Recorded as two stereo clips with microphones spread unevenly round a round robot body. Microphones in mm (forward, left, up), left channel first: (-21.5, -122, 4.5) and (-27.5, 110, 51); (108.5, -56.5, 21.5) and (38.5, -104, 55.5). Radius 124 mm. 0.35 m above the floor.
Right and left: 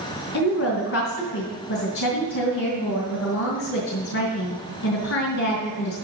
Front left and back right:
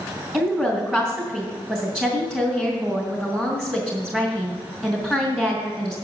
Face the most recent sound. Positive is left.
turn(degrees=-70)